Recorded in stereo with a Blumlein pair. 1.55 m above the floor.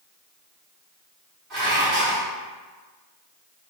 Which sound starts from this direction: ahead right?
Dishes clattering, at 1.5 s.